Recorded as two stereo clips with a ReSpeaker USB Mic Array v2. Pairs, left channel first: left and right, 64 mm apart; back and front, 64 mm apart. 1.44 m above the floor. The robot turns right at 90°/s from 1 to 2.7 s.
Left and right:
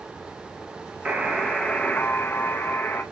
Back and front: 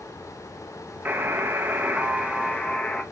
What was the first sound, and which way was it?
A buzzer, 35° right.